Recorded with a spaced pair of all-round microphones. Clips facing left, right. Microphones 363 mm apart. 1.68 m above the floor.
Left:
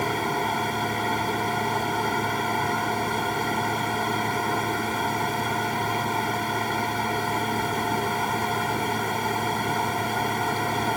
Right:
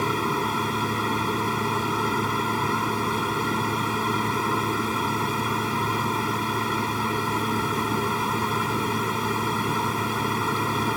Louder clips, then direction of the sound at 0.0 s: Right 1 dB; 15° right (ahead or behind).